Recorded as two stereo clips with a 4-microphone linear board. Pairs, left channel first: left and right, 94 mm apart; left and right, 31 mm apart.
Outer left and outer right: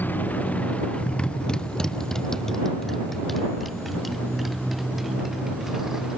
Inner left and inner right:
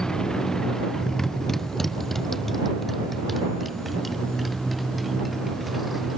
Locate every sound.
0.0 s a motorcycle: 20° left (ahead or behind); by 6.2 s 5° right (ahead or behind)